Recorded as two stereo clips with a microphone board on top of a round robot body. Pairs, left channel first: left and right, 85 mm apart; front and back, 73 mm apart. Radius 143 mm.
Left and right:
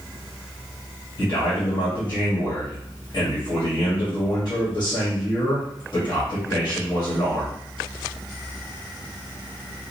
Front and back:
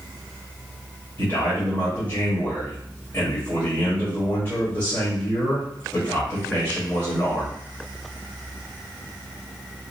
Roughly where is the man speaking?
Ahead left.